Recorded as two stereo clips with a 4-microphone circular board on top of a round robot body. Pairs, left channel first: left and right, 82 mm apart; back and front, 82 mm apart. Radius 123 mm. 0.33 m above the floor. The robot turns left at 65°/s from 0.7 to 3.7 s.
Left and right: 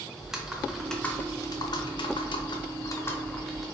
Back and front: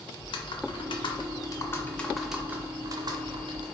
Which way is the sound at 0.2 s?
175° right.